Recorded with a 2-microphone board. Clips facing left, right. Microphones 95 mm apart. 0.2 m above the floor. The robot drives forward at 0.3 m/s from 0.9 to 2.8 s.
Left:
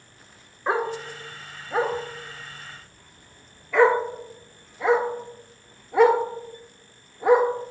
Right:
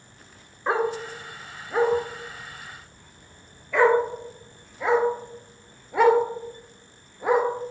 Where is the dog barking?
Centre (ahead or behind), 0.7 m.